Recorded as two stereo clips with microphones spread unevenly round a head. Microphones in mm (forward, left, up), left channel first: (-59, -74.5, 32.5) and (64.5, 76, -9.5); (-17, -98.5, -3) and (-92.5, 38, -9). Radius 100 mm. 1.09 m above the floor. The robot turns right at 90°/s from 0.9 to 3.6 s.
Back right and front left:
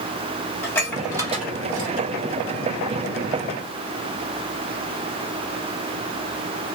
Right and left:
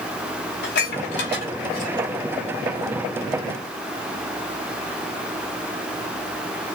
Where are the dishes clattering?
50° right, 3.5 m; by 2.1 s 55° left, 3.5 m.